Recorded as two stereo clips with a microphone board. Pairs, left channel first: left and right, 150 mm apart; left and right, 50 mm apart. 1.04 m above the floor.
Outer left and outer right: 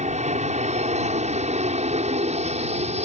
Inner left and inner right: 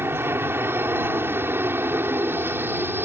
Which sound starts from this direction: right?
An aircraft, at 0.0 s.